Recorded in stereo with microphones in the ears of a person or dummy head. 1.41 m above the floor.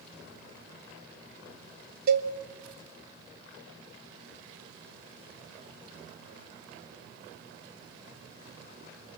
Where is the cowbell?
60° right (ahead or behind), 1.2 m.